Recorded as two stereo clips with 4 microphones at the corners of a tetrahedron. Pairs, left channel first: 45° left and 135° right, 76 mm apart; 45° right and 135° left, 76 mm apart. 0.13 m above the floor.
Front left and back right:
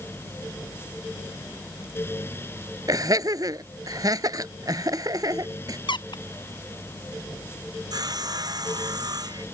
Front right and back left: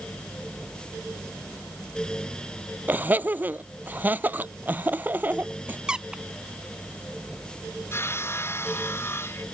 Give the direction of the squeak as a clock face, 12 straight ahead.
10 o'clock.